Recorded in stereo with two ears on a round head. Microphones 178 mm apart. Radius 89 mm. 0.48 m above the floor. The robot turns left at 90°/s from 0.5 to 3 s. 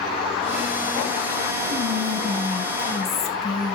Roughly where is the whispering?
Right.